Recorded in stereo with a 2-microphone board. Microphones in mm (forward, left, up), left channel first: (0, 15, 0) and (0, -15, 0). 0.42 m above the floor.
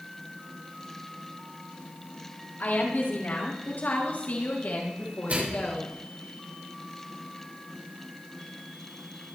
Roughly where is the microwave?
Right.